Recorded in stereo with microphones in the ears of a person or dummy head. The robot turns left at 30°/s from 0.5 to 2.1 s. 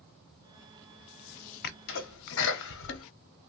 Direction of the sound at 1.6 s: 55° left (ahead or behind).